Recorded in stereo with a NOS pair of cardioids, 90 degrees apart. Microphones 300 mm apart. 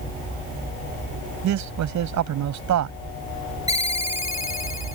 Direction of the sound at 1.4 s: 70° right.